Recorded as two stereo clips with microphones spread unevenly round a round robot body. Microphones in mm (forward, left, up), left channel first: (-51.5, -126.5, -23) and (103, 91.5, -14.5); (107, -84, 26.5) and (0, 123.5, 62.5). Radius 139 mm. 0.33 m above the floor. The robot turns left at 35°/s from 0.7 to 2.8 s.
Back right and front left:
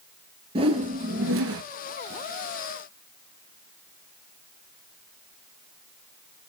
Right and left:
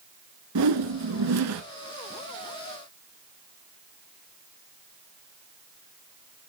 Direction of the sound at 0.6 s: 125° left.